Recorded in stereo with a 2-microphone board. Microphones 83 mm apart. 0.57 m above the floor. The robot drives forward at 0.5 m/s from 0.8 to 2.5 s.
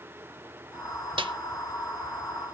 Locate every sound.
1.2 s a snare drum: 85° right, 0.9 m; by 1.3 s 80° right, 0.9 m